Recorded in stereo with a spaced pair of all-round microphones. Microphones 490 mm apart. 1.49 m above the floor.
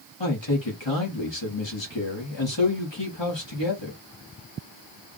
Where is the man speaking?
60° left (ahead or behind), 1.7 m.